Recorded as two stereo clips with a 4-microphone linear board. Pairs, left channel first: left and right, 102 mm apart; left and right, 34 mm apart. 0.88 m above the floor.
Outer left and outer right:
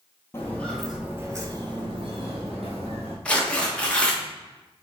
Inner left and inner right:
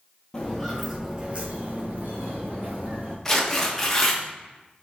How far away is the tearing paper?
About 0.8 m.